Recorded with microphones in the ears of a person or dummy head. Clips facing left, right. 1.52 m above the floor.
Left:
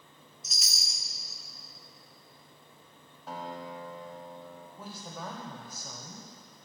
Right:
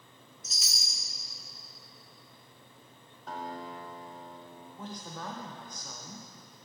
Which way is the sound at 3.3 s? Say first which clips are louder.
Even; 10° left (ahead or behind).